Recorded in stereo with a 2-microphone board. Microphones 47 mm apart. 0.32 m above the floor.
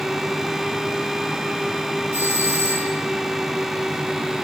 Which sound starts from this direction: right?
A doorbell, at 2.1 s.